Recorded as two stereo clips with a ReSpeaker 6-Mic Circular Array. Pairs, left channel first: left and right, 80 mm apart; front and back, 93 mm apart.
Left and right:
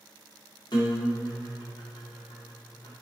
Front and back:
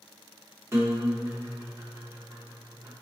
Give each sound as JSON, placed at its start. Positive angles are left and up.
{"t": 0.7, "sound": "a guitar", "azimuth_deg": 120, "distance_m": 0.6}